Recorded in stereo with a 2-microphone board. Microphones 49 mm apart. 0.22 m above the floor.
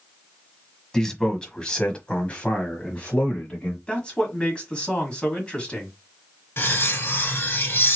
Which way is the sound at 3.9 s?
20° left (ahead or behind).